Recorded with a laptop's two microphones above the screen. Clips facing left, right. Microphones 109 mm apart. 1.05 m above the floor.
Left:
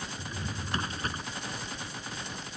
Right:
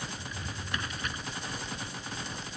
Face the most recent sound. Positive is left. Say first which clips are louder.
# left 2 dB
turn(degrees=35)  # may be behind; listen again after turning